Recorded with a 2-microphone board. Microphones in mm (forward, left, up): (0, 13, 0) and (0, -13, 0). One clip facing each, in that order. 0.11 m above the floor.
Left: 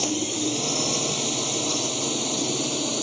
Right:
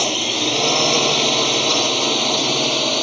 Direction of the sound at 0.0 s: 45° right (ahead or behind).